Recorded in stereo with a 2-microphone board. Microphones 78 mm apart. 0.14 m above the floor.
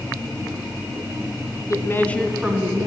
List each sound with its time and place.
1.7 s a woman speaking: 45° left (ahead or behind), 1.3 m; by 2.9 s 35° right (ahead or behind), 1.3 m